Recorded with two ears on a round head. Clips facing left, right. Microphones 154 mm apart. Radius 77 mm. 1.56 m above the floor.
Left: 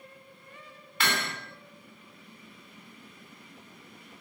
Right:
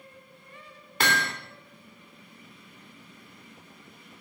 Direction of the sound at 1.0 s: 35° right (ahead or behind).